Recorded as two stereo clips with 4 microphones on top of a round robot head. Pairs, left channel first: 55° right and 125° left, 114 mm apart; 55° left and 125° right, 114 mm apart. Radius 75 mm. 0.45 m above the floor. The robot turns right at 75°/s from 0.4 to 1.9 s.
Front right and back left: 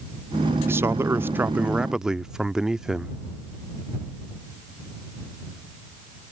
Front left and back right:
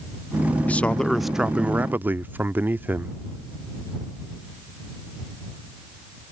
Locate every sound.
0.7 s a man speaking: 105° left; by 3.2 s 160° right